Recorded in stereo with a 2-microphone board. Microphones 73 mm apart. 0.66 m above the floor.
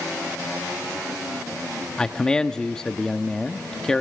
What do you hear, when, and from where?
2.0 s a man speaking: 10° left (ahead or behind), 0.9 m